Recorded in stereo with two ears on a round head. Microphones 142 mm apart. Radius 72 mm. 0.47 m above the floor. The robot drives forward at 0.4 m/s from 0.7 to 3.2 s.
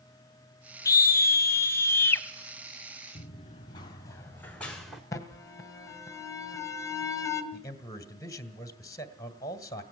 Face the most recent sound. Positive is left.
turn(degrees=20)  # may be behind; listen again after turning